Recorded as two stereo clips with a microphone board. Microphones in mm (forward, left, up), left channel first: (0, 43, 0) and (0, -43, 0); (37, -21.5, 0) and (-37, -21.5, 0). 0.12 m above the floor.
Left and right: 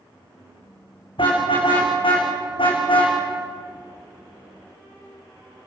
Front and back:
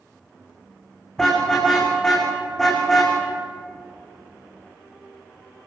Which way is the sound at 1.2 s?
85° left.